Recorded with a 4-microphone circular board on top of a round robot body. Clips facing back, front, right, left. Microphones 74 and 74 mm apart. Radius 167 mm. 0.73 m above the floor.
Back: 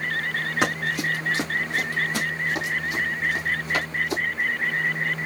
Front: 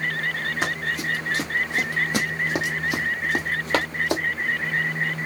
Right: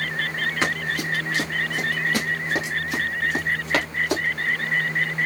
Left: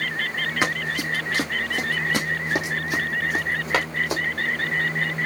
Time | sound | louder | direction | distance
0.6 | running footsteps | back 3 dB, left 2 dB | 160° left | 1.0 m